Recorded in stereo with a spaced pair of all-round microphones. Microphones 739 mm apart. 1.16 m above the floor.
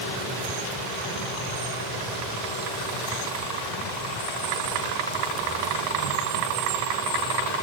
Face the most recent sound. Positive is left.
No sound to turn to.